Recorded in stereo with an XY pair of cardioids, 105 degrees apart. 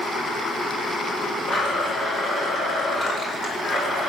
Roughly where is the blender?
Ahead left.